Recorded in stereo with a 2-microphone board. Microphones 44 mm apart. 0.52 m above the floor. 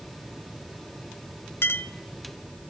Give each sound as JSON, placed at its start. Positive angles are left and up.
{"t": 1.6, "sound": "a clink", "side_deg": 60, "distance_m": 0.9}